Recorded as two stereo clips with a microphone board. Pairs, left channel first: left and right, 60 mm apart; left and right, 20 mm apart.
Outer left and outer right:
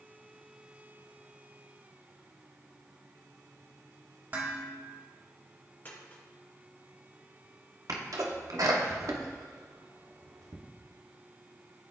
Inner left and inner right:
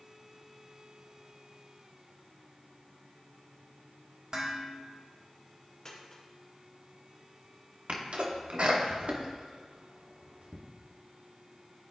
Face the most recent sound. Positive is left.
turn(degrees=-70)  # may be behind; listen again after turning